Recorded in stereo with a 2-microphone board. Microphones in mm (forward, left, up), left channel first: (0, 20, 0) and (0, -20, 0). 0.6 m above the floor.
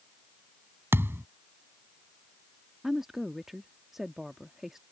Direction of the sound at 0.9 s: 80° right.